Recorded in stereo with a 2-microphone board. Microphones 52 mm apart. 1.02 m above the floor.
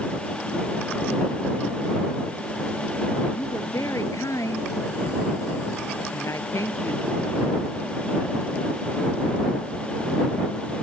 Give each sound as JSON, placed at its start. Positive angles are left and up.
{"t": 3.4, "sound": "a woman speaking", "side_deg": 75}